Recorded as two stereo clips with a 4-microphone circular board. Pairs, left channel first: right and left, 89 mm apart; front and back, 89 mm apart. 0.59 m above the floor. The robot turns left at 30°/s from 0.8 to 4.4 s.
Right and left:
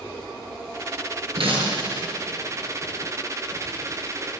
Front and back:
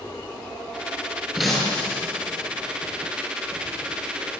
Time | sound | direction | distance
1.4 | breaking glass | 90° left | 7.5 m